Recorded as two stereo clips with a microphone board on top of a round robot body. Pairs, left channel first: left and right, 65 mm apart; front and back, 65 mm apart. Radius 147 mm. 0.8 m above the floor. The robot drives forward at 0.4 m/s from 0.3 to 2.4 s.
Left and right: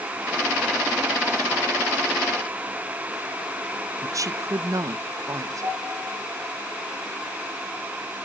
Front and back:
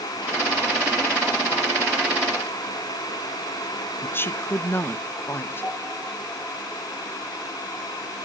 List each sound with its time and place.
4.0 s a woman speaking: 55° right, 0.8 m
5.6 s a piano: 60° right, 9.5 m